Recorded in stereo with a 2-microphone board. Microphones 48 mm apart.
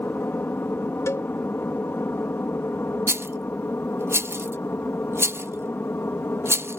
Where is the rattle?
55° right (ahead or behind).